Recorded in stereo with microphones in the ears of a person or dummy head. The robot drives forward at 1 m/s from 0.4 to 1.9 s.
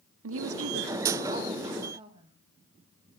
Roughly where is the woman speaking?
Right.